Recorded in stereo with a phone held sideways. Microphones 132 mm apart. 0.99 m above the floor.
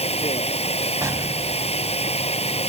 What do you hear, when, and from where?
0.0 s running water: 50° left (ahead or behind)
1.0 s an explosion: 20° right (ahead or behind)